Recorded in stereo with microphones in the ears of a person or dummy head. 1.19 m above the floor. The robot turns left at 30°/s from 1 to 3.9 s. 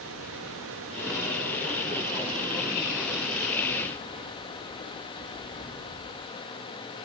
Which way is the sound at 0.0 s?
115° right.